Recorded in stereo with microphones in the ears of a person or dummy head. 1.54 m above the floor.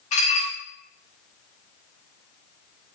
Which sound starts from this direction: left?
Dishes clattering, at 0.1 s.